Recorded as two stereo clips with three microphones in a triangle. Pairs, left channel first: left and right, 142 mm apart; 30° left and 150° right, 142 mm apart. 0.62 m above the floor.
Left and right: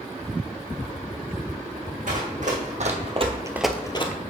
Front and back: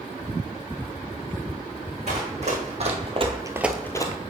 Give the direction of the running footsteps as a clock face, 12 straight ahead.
4 o'clock.